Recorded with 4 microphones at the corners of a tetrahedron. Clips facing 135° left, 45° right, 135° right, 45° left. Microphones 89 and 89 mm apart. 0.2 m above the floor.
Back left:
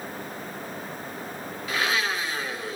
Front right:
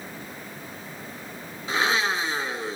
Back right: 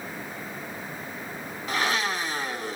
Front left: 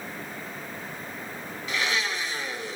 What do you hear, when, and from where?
1.7 s a blender: 100° right, 1.7 m